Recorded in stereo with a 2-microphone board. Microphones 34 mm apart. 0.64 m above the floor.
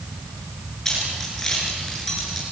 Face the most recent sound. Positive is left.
turn(degrees=5)  # may be behind; listen again after turning